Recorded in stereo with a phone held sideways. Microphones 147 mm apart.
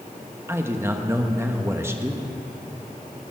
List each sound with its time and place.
0.5 s a man speaking: 15° right (ahead or behind), 1.1 m